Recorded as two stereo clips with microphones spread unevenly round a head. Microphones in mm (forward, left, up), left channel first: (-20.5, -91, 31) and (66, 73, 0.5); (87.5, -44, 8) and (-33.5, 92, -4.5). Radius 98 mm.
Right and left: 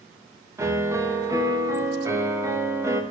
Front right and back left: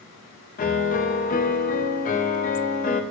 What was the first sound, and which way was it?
A piano, 20° right.